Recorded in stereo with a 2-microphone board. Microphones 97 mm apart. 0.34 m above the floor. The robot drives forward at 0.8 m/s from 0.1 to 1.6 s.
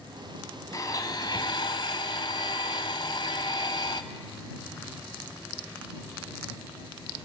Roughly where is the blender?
Left.